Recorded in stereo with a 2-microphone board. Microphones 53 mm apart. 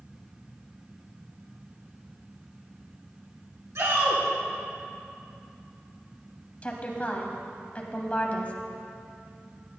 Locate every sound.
3.8 s a shout: 70° right (ahead or behind), 3 m
6.6 s a woman speaking: 30° left (ahead or behind), 1.2 m